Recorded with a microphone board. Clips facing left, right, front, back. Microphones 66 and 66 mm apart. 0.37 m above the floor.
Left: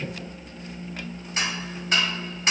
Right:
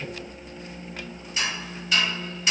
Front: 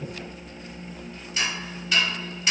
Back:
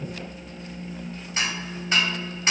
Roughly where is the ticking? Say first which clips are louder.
Left 1 dB, even; behind left.